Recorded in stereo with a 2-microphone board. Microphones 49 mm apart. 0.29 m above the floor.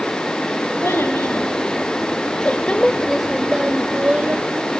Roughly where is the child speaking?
Left.